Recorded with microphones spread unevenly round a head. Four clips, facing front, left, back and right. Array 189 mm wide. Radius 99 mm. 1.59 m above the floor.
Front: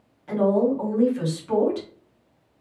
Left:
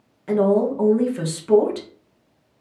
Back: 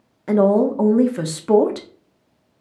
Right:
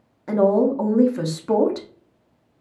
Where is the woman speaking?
Straight behind, 0.8 m.